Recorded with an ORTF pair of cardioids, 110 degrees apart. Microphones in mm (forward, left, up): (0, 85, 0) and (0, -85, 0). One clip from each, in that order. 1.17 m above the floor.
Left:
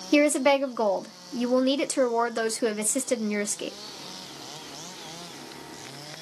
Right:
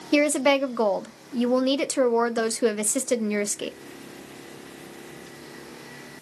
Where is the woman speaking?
5° right, 0.5 m.